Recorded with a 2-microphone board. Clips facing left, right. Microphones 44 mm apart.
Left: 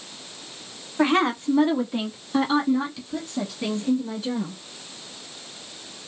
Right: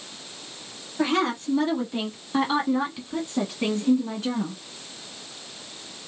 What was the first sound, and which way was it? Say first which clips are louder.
A woman speaking: left 3 dB; 30° left (ahead or behind).